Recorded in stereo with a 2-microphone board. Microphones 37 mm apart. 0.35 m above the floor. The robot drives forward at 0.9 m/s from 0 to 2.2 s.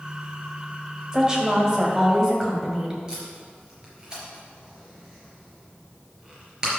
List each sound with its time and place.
1.1 s a woman speaking: 20° right (ahead or behind), 1.7 m; by 3.0 s 15° right (ahead or behind), 2.5 m
3.1 s tape being pulled: 20° right (ahead or behind), 4 m